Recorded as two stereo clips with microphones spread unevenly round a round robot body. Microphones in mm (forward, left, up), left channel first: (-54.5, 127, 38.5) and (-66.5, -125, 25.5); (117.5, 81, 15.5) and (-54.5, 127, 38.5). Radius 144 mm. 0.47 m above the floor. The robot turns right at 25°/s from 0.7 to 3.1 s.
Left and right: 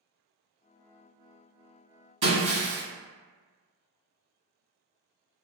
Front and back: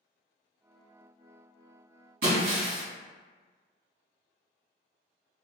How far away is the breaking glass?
About 1.3 m.